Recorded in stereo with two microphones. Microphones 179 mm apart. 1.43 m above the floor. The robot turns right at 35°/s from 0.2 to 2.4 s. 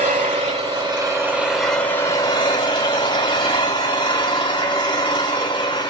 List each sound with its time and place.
0.0 s an engine running: 50° right, 5.5 m; by 5.9 s 30° left, 5.5 m